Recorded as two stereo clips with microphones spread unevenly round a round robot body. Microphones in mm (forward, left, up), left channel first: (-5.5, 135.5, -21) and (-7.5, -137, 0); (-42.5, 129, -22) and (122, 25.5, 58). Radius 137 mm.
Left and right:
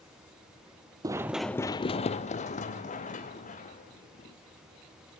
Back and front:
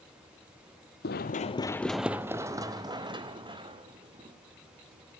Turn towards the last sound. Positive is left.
turn(degrees=25)